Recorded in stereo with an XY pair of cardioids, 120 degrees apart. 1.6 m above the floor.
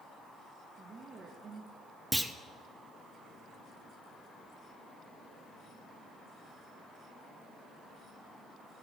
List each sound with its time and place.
0.8 s a woman speaking: 40° right, 1.8 m
2.1 s a clunk: 5° right, 0.6 m